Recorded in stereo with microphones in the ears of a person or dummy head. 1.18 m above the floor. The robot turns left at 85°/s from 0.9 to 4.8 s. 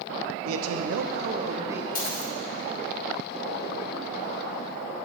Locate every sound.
0.5 s a man speaking: 95° right, 0.6 m; by 1.9 s 175° right, 0.6 m
1.9 s a dropped coin: 120° left, 0.8 m; by 2.3 s 85° left, 0.8 m